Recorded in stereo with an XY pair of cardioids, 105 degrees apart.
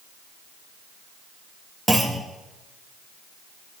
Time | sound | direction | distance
1.9 | a clunk | 10° right | 2.0 m